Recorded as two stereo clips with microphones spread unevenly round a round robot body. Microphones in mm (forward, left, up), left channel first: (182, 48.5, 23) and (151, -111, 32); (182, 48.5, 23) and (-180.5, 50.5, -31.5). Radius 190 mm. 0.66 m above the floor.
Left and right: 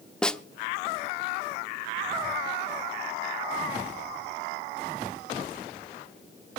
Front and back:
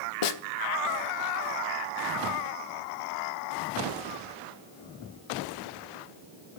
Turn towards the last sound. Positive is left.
turn(degrees=-5)